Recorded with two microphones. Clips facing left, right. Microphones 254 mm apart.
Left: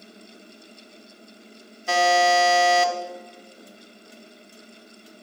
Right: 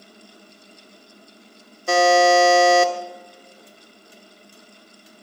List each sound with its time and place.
1.9 s a buzzer: 50° right (ahead or behind), 1.1 m